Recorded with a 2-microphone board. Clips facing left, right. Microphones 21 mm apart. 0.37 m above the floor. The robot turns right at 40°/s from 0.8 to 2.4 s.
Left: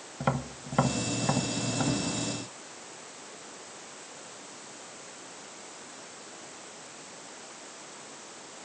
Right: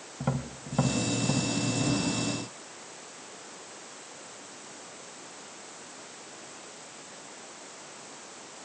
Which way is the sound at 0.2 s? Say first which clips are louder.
Left 2 dB; 25° left (ahead or behind).